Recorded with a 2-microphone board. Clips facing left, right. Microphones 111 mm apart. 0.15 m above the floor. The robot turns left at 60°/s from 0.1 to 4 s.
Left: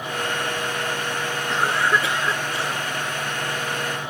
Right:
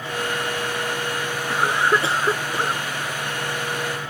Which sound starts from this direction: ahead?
A cough, at 1.5 s.